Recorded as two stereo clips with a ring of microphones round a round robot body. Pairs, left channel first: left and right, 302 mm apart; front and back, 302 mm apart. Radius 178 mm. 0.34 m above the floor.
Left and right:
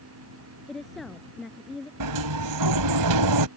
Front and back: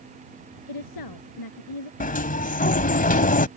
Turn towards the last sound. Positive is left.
turn(degrees=-65)